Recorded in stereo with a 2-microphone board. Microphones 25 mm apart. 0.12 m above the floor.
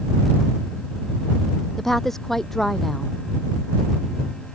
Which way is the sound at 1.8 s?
10° left (ahead or behind).